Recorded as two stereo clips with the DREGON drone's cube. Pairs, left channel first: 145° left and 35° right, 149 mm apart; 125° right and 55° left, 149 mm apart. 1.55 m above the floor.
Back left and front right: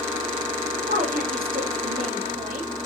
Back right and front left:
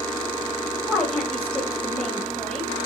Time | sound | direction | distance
0.9 | a woman speaking | 45° right | 3.5 m